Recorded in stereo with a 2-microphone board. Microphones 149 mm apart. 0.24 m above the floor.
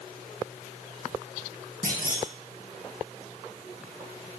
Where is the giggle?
I don't hear a giggle.